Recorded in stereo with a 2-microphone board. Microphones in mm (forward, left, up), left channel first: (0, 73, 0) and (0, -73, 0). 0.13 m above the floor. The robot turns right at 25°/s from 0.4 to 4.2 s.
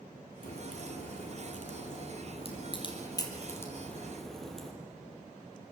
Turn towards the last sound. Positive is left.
turn(degrees=5)  # may be behind; listen again after turning